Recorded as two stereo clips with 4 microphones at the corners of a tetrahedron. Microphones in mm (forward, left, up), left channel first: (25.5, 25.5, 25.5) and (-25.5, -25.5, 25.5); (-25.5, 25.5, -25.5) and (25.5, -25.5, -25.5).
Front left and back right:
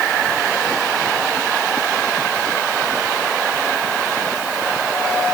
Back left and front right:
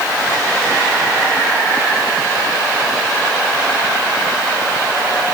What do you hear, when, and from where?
Only background noise.